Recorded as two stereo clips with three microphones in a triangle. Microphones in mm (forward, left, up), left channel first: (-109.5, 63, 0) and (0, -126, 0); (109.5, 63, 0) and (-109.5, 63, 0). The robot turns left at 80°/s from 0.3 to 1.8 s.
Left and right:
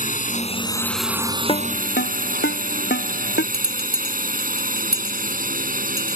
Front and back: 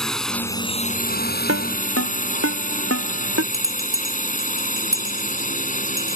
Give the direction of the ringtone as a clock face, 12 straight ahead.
6 o'clock.